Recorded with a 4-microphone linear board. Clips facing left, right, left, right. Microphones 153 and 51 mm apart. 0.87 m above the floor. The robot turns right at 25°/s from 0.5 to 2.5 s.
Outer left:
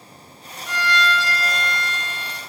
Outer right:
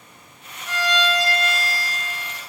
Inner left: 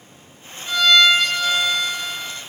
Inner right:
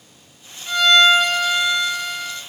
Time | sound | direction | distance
0.7 | a violin | 175° right | 1.1 m